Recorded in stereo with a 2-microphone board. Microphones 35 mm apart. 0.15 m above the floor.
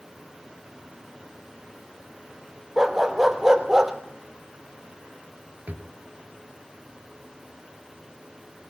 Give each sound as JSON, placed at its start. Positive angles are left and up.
{"t": 2.8, "sound": "a dog barking", "side_deg": -10, "distance_m": 1.5}
{"t": 5.7, "sound": "a drawer", "side_deg": -55, "distance_m": 1.6}